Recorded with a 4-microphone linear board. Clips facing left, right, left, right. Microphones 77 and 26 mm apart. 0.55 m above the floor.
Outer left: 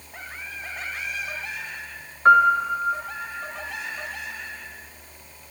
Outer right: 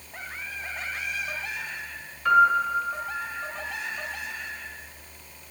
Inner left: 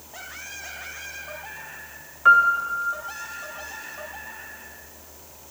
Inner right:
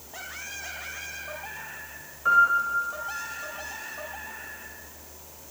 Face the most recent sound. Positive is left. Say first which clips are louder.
# outer left 4 dB, inner left 4 dB
turn(degrees=45)  # may be behind; listen again after turning